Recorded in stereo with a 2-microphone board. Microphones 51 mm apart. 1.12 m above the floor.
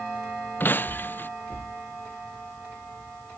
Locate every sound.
0.6 s breaking glass: 40° left (ahead or behind)